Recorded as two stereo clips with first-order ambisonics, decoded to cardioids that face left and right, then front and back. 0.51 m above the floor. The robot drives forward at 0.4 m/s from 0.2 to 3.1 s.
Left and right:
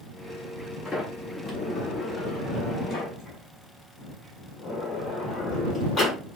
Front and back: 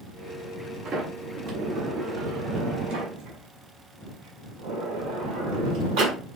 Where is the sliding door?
150° left, 1.3 m; by 6.2 s 165° left, 1.9 m.